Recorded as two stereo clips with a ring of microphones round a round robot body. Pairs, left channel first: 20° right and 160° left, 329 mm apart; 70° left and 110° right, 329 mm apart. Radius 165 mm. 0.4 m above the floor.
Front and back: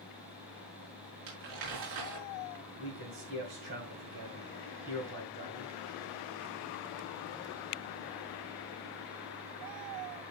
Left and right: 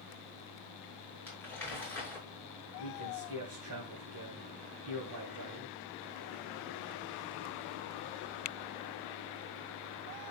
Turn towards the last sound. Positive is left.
turn(degrees=-155)